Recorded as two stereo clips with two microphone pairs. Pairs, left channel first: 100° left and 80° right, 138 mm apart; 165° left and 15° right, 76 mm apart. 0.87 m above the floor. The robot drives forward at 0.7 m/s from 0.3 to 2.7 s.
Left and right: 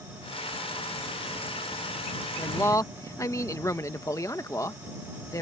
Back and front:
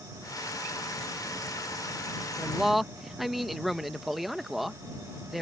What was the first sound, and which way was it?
A man speaking, 50° left.